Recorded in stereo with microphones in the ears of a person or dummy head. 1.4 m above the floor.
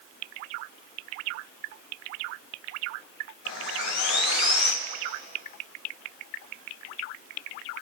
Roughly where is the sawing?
Left.